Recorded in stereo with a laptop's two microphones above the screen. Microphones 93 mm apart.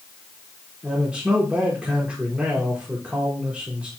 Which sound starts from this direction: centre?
A man speaking, at 0.8 s.